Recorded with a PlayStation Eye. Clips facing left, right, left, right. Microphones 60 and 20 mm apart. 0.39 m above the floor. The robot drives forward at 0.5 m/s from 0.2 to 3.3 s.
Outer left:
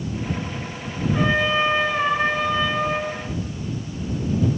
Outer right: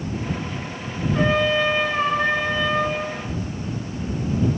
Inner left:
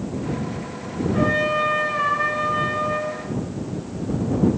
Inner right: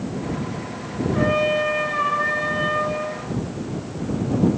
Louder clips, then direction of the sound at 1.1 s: Outer right 1 dB, inner right 1 dB; 10° left (ahead or behind).